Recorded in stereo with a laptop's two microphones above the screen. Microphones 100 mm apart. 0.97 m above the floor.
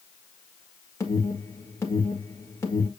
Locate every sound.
1.0 s an alarm: 30° left (ahead or behind), 1.6 m